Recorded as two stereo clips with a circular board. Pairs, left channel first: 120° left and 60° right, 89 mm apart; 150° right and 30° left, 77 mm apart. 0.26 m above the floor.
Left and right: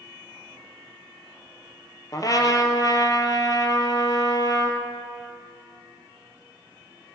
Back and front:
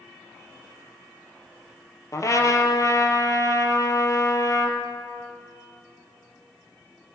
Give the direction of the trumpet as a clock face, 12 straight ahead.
6 o'clock.